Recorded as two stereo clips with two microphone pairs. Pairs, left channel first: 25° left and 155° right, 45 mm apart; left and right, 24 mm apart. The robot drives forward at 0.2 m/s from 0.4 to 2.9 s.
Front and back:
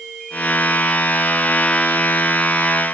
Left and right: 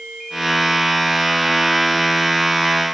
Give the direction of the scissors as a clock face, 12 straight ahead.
I don't hear scissors.